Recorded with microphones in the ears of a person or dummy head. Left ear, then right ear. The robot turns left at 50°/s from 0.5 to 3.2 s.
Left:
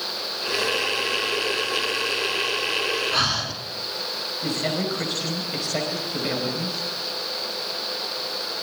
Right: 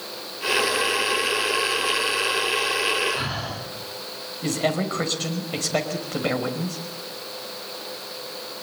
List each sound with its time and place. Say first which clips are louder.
3.1 s breathing: left 5 dB; 55° left (ahead or behind), 3.5 m; by 3.5 s 50° left (ahead or behind), 3.5 m
4.4 s a man speaking: right 3 dB; 35° right (ahead or behind), 5 m